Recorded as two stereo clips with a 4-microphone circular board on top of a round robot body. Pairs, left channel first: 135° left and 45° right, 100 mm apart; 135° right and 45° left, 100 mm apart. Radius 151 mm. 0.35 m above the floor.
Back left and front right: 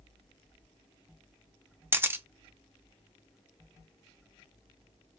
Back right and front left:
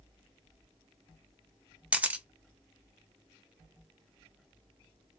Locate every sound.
1.9 s a camera shutter: 15° right, 0.9 m